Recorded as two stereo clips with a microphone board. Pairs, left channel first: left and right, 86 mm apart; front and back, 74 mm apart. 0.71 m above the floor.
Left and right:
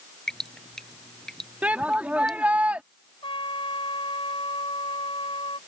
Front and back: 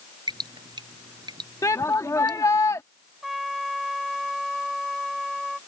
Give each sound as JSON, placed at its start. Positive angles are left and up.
{"t": 0.3, "sound": "dripping", "azimuth_deg": 175}
{"t": 1.6, "sound": "a shout", "azimuth_deg": -20}
{"t": 3.2, "sound": "a trumpet", "azimuth_deg": 90}